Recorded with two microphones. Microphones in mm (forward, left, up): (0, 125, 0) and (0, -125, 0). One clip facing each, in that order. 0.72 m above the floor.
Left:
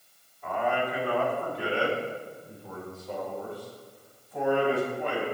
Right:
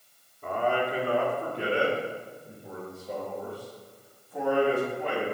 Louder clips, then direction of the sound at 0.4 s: Right 1 dB; 45° right (ahead or behind).